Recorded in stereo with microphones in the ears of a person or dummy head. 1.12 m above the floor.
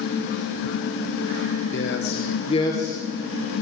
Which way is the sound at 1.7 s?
55° left (ahead or behind).